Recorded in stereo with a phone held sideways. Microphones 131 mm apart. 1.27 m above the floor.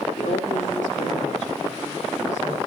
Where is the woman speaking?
70° left (ahead or behind), 2 m; by 2.6 s 85° left, 4.5 m.